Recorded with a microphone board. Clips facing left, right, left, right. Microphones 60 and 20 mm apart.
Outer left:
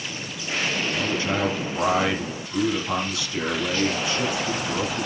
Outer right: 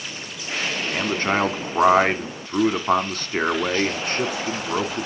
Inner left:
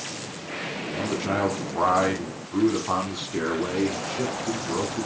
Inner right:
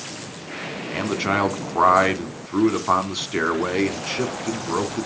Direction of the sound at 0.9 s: 45° right (ahead or behind).